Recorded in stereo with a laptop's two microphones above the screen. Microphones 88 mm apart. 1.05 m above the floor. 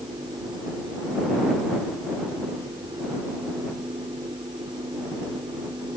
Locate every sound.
0.0 s a fan: 65° right (ahead or behind)